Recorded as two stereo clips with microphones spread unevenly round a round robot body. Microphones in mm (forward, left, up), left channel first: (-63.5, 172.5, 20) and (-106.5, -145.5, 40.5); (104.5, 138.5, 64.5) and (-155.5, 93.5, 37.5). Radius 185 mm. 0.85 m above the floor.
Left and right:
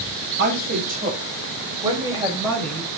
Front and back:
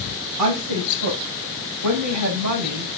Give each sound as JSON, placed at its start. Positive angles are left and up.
{"t": 0.4, "sound": "a woman speaking", "azimuth_deg": -155, "distance_m": 5.5}